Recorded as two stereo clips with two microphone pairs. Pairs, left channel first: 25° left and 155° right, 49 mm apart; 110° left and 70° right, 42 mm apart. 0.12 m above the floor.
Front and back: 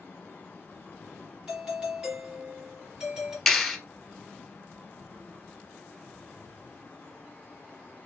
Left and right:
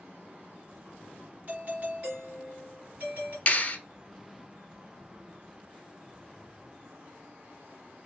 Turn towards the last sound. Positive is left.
turn(degrees=105)